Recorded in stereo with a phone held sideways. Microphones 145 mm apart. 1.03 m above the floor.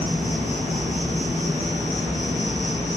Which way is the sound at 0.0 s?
50° right (ahead or behind).